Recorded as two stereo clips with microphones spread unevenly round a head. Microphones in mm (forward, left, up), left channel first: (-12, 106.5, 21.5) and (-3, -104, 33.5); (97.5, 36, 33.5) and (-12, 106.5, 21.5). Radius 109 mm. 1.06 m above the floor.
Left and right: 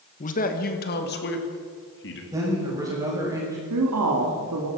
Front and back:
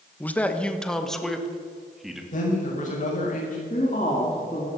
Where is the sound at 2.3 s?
10° right, 6.5 m.